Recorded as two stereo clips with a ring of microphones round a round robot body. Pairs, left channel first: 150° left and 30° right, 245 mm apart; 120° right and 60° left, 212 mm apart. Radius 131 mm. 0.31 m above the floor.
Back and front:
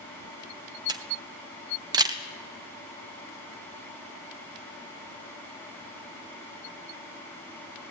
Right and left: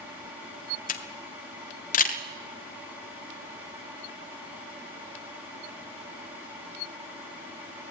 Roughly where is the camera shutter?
Right.